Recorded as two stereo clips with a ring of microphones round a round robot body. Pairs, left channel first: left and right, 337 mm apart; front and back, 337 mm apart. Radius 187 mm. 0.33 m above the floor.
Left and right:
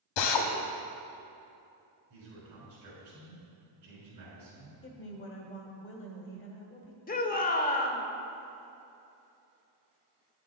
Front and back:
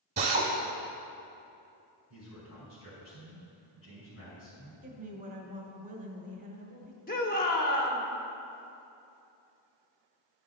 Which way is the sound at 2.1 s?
45° right.